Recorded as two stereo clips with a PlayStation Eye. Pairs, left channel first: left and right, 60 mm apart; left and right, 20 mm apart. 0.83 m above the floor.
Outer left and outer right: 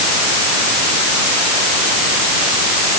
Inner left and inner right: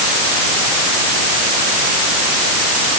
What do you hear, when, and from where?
Only background noise.